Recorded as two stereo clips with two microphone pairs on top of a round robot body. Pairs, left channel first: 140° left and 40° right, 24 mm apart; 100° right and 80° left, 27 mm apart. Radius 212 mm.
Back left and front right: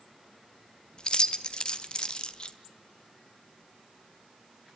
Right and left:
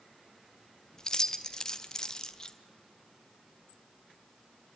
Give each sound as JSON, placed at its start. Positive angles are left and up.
{"t": 1.0, "sound": "keys jangling", "azimuth_deg": -165, "distance_m": 0.8}